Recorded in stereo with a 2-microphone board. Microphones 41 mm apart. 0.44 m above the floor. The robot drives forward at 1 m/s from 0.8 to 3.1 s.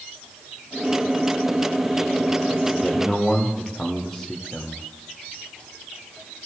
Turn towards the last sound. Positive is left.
turn(degrees=10)  # may be behind; listen again after turning